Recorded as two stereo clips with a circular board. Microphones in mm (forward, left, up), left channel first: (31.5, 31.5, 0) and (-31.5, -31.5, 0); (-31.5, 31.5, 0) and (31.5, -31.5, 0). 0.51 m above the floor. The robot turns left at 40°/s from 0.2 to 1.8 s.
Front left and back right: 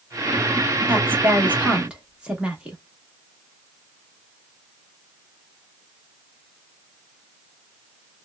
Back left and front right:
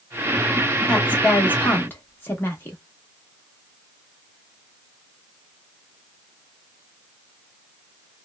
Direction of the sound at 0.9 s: 160° right.